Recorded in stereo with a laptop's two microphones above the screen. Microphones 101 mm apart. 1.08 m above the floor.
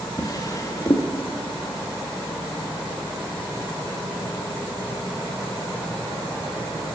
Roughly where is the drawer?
Left.